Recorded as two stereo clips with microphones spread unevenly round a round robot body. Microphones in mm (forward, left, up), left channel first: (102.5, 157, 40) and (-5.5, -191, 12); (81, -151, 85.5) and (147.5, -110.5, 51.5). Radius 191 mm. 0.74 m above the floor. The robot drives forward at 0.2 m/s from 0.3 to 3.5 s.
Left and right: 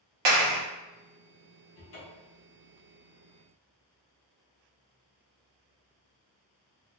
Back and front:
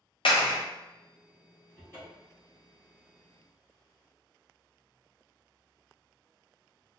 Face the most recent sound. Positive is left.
turn(degrees=140)